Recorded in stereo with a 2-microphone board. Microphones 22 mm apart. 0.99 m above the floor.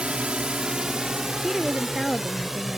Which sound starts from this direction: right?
A drone, at 0.0 s.